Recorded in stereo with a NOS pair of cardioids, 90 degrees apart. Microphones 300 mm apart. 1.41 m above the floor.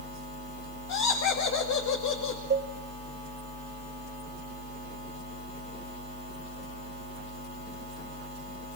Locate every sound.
0.9 s laughter: 65° left, 2 m
2.5 s a cowbell: 35° right, 1.9 m